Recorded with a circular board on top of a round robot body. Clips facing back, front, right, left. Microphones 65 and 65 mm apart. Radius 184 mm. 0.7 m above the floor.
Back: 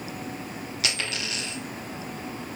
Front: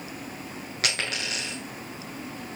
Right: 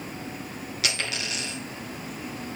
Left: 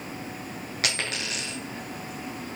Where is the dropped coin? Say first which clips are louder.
Front 2 dB, even; 45° left, 0.9 m.